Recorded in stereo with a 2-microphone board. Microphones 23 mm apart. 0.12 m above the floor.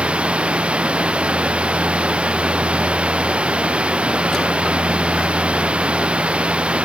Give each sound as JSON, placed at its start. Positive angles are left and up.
{"t": 0.0, "sound": "running water", "side_deg": -60}